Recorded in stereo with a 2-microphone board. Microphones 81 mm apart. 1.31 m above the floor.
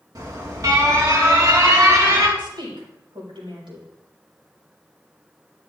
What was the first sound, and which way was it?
An alarm, 50° right (ahead or behind).